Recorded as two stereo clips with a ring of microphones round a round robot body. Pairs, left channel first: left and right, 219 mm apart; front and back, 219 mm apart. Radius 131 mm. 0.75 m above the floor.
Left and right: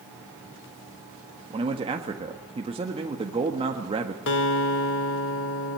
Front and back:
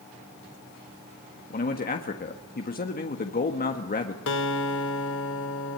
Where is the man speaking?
30° right, 1.6 m.